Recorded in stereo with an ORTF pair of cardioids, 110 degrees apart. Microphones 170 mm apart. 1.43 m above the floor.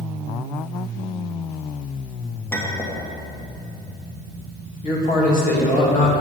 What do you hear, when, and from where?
2.5 s a clink: 15° left, 1.6 m
4.8 s a man speaking: 55° left, 2 m